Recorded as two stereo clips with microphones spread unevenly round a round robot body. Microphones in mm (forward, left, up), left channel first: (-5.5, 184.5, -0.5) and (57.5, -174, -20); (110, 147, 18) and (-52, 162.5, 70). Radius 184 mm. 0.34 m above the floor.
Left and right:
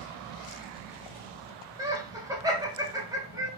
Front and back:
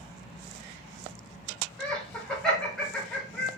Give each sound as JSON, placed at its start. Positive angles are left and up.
{"t": 1.8, "sound": "laughter", "azimuth_deg": -20, "distance_m": 0.9}